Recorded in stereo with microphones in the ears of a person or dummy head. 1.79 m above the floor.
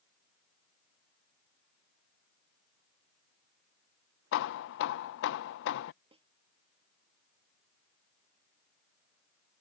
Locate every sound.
4.3 s hammering: 60° left (ahead or behind)
6.1 s a snare drum: 30° right (ahead or behind)